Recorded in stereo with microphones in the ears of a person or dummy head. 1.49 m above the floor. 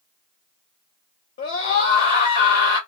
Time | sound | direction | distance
1.4 | a scream | 60° left (ahead or behind) | 1.0 m